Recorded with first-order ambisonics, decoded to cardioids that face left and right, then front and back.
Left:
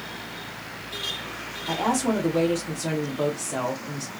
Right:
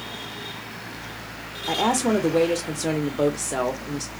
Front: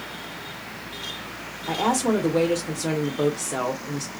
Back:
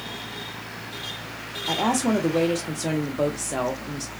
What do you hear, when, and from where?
1.7 s a woman speaking: 105° right, 0.8 m